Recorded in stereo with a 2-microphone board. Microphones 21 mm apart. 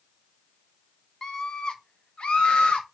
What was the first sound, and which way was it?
A scream, 25° left (ahead or behind).